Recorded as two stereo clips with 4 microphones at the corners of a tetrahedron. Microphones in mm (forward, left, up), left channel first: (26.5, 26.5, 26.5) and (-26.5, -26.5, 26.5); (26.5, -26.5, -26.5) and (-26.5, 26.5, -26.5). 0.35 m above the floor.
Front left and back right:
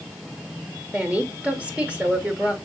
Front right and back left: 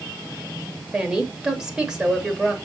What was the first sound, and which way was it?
A woman speaking, 165° right.